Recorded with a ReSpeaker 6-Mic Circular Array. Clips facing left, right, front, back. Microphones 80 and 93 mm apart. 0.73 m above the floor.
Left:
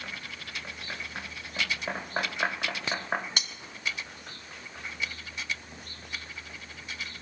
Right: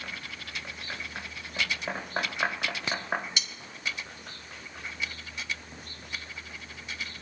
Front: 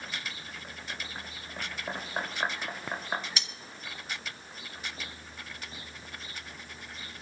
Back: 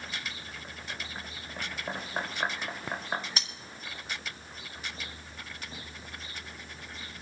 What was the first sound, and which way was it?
Cutlery clinking, 130° left.